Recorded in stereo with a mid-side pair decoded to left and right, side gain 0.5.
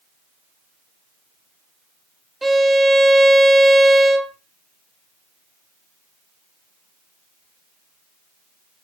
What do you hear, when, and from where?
2.4 s a violin: 15° right, 0.5 m